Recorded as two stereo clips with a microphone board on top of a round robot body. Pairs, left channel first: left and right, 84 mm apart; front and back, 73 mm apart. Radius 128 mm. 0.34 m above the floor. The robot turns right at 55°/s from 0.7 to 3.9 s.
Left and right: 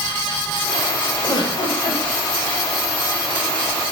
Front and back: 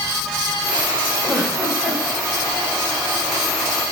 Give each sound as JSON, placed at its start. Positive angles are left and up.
{"t": 1.2, "sound": "a giggle", "azimuth_deg": 50, "distance_m": 2.0}